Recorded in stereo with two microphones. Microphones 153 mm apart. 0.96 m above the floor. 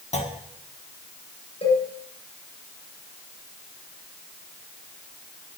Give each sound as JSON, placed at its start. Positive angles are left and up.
{"t": 0.1, "sound": "a clunk", "side_deg": 45, "distance_m": 1.6}
{"t": 1.6, "sound": "a cowbell", "side_deg": 40, "distance_m": 7.5}